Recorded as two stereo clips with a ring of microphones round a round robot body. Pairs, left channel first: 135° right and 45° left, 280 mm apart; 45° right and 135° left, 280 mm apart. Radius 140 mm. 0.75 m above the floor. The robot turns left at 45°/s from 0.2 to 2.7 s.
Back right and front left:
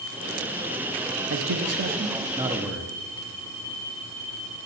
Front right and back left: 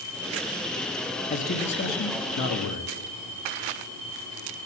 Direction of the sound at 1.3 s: 20° left.